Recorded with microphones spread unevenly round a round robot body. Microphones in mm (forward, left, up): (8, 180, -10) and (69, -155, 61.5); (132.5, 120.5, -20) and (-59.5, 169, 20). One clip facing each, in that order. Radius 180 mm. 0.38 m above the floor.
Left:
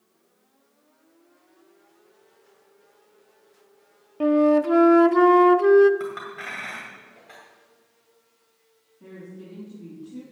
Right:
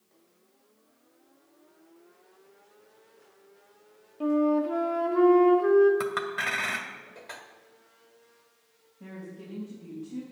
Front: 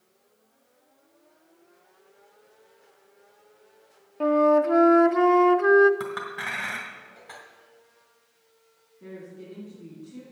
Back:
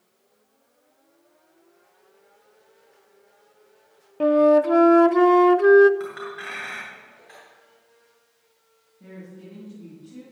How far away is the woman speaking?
About 3.5 m.